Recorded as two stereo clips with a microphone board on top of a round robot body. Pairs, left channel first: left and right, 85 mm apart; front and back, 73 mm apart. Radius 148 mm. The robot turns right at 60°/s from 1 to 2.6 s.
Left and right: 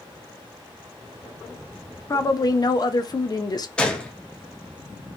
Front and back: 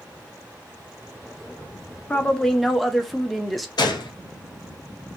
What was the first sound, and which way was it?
A woman speaking, 60° left.